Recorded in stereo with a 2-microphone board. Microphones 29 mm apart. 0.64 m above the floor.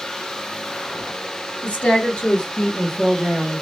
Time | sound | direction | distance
1.6 | a woman speaking | 60° left (ahead or behind) | 1.5 m